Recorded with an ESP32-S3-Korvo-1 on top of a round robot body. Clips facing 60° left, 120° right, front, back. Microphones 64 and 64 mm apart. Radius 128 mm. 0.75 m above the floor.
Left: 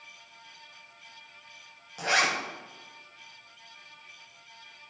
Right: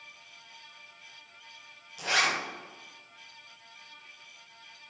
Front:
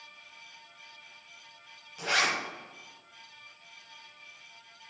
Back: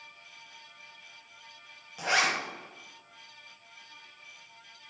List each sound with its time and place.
2.0 s a zipper: 110° left, 1.2 m